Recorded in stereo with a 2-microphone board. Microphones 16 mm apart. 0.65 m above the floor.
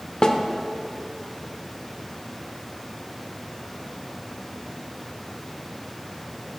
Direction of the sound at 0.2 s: 45° left (ahead or behind).